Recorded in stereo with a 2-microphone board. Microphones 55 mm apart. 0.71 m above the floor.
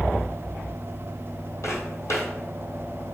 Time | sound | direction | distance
1.6 | footsteps | 65° left (ahead or behind) | 1.4 m